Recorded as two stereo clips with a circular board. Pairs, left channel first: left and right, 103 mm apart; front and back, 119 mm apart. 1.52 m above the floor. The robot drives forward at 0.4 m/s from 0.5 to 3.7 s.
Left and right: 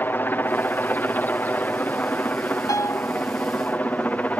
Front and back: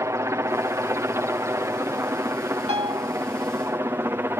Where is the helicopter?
140° left; by 4.4 s 145° left.